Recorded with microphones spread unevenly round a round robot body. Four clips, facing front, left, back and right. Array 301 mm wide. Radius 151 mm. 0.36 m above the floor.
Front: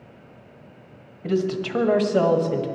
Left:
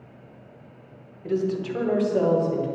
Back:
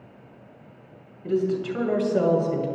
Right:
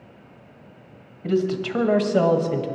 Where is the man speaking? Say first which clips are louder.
Right 3 dB, even; 50° right, 2.5 m; by 2.7 s 85° right, 2.5 m.